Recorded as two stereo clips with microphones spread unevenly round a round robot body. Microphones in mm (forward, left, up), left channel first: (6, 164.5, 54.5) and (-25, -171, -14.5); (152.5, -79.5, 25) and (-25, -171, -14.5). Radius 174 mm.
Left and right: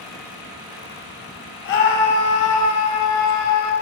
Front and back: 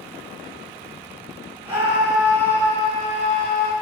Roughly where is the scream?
Behind left.